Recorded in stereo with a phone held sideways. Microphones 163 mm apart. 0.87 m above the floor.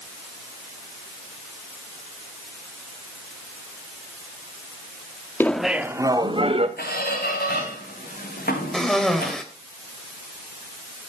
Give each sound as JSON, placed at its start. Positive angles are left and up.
{"t": 5.4, "sound": "laughter", "side_deg": 10, "distance_m": 1.4}
{"t": 6.8, "sound": "a squeak", "side_deg": 70, "distance_m": 6.5}
{"t": 8.7, "sound": "a cough", "side_deg": 5, "distance_m": 4.0}